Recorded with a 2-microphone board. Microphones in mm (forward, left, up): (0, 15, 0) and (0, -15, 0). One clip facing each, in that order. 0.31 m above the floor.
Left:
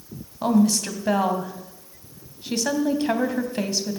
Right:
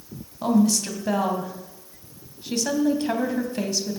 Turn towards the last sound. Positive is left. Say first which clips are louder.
# left 1 dB
turn(degrees=20)  # may be behind; listen again after turning